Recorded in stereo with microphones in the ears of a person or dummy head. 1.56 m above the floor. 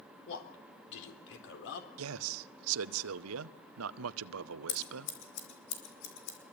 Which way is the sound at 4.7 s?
60° left (ahead or behind).